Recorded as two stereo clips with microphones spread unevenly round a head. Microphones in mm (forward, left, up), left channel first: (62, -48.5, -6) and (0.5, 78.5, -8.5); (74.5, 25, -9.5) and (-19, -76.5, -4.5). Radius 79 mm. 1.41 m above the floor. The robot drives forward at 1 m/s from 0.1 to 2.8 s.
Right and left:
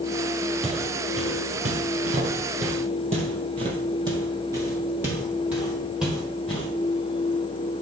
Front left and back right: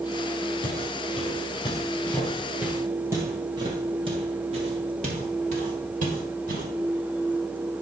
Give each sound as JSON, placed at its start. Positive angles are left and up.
{"t": 0.6, "sound": "footsteps", "azimuth_deg": 75, "distance_m": 3.0}